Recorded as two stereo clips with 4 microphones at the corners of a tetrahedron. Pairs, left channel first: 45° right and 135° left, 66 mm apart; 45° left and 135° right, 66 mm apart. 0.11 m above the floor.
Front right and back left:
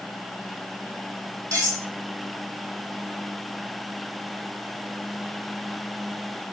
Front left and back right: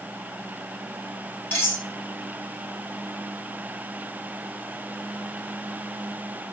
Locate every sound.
1.5 s cutlery clinking: 100° left, 1.7 m